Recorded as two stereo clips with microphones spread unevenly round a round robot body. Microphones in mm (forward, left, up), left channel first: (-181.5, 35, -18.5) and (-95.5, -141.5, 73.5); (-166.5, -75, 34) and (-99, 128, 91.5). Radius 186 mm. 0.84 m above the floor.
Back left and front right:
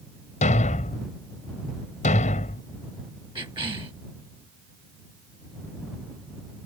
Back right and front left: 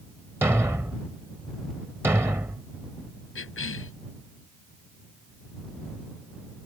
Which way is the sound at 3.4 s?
130° right.